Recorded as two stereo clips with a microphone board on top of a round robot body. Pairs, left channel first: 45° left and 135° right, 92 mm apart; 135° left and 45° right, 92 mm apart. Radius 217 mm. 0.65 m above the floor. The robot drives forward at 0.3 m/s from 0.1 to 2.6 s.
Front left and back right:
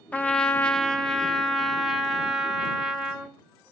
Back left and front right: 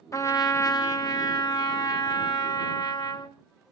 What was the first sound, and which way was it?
A trumpet, 110° left.